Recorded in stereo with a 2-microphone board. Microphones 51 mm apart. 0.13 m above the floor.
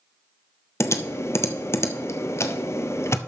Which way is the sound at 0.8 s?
60° left (ahead or behind).